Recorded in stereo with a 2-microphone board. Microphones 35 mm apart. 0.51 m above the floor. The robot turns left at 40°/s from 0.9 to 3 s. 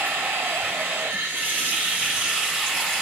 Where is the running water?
105° right, 1.8 m; by 3.0 s 175° left, 1.8 m.